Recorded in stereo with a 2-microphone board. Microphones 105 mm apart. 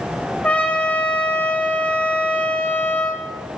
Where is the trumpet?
15° left (ahead or behind), 2.5 m.